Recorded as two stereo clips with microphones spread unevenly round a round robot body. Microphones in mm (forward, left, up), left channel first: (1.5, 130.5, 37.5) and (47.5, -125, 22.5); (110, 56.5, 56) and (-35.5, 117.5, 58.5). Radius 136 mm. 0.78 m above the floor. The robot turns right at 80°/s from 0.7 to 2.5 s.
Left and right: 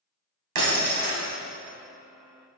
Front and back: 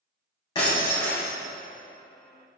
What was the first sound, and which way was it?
Breaking glass, 95° right.